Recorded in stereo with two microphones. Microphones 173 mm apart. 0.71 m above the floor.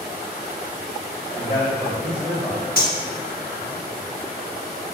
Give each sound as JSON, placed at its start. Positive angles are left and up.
{"t": 1.4, "sound": "a man speaking", "side_deg": -55, "distance_m": 1.9}
{"t": 2.8, "sound": "cutlery clinking", "side_deg": 55, "distance_m": 0.8}